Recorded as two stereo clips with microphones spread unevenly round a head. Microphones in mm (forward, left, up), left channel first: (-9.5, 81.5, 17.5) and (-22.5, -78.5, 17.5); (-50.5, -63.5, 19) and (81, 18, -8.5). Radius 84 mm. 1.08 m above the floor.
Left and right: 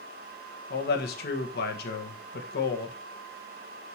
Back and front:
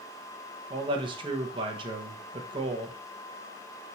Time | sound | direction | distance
0.7 | a man speaking | 85° left | 1.4 m